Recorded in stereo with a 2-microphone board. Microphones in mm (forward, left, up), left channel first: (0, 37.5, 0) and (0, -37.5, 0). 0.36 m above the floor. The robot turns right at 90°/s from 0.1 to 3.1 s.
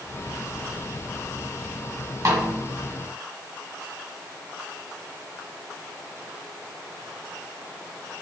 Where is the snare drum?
50° right (ahead or behind), 1.4 m; by 2.5 s 30° right (ahead or behind), 1.4 m.